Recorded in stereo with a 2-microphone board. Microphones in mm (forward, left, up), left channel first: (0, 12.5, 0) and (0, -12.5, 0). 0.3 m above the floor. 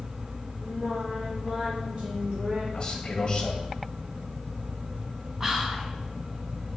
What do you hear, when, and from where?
0.6 s singing: 40° right (ahead or behind), 2.5 m
2.7 s a man speaking: 35° left (ahead or behind), 1.3 m
5.4 s whispering: 15° right (ahead or behind), 2.0 m